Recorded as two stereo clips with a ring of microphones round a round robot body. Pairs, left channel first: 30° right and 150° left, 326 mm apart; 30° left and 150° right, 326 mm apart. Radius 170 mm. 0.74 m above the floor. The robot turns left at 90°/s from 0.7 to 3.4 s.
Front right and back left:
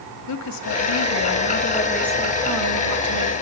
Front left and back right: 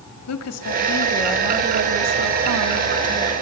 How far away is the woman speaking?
About 2 m.